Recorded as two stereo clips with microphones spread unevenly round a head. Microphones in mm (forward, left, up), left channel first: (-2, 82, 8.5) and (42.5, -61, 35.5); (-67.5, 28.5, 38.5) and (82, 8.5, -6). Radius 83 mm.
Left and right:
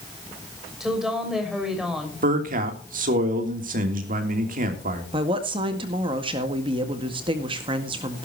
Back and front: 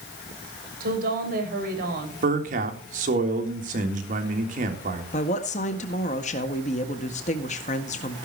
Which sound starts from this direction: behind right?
A woman speaking, at 5.1 s.